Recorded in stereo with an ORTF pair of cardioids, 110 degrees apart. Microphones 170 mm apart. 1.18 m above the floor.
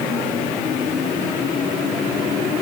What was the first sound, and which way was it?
Only background noise.